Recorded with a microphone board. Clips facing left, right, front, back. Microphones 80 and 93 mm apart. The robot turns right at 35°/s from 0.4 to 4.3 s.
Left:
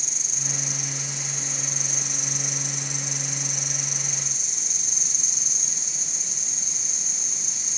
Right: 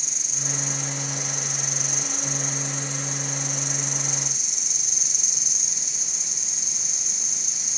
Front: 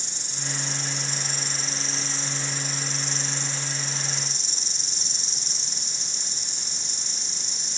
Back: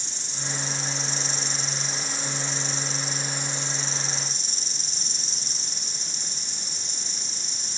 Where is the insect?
Straight ahead, 2.0 m; by 7.8 s 135° left, 2.0 m.